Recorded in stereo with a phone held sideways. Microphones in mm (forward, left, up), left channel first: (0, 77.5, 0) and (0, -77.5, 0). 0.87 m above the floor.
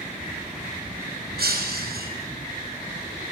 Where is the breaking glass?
85° right, 4.5 m.